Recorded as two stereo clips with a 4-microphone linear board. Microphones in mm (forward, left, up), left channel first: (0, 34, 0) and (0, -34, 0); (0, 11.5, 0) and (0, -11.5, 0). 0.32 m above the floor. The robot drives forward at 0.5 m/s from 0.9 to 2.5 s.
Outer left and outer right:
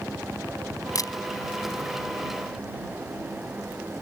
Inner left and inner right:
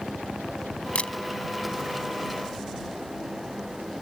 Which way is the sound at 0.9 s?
60° left (ahead or behind).